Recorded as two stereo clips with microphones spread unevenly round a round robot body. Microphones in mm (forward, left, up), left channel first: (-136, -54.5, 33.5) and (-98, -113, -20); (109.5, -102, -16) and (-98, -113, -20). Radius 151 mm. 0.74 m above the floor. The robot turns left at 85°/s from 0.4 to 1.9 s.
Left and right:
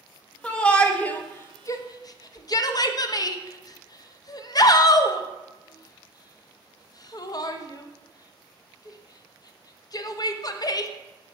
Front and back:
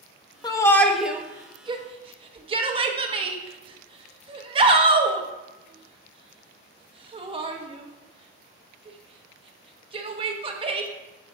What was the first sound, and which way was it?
A shout, 45° right.